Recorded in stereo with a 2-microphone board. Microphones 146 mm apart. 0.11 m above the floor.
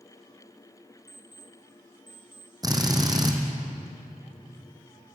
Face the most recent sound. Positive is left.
turn(degrees=-25)  # may be behind; listen again after turning